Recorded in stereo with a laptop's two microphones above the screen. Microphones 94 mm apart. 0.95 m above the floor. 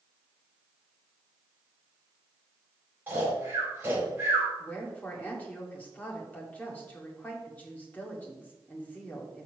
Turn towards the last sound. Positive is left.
turn(degrees=15)  # may be behind; listen again after turning